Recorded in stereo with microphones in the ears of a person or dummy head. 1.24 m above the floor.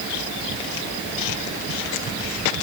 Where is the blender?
No blender in this recording.